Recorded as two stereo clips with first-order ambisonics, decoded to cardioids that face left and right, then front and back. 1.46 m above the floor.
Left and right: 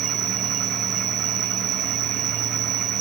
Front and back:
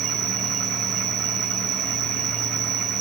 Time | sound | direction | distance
0.0 | an insect | 135° right | 0.9 m